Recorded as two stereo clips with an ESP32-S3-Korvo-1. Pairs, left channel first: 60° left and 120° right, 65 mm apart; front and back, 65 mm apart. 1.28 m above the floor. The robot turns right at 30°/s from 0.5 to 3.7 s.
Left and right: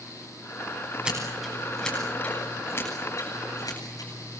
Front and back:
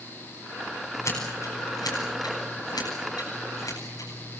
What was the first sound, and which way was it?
Scissors, 45° right.